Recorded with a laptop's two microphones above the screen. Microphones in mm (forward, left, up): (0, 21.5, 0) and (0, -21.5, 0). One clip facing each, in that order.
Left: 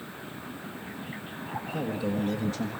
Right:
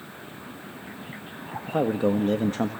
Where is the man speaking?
50° right (ahead or behind), 1.5 m.